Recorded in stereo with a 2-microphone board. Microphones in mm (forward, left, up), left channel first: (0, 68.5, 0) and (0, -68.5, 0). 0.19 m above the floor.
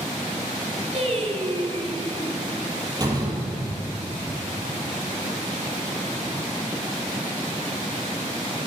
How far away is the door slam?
About 4 m.